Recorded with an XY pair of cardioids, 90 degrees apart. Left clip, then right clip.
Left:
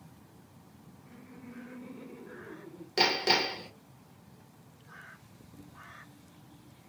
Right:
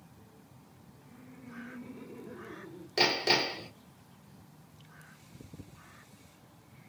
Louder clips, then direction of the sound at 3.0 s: Left 1 dB; 15° left.